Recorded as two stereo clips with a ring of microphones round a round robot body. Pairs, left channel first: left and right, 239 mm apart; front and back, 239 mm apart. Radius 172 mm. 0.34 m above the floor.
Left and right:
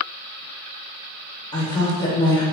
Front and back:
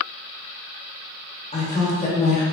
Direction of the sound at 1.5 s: 30° left.